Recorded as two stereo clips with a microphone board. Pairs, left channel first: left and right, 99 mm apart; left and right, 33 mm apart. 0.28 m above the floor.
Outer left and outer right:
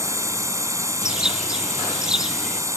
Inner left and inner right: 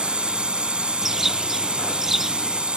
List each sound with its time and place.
0.0 s a drone: 30° right (ahead or behind)
1.0 s a bird: 5° right (ahead or behind)